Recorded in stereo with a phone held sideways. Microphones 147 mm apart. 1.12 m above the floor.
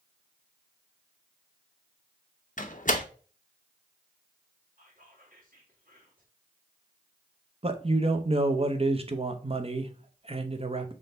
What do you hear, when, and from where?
2.6 s a door slam: 60° left (ahead or behind), 0.7 m
4.8 s whispering: 80° right, 1.9 m
7.6 s a man speaking: 40° right (ahead or behind), 0.7 m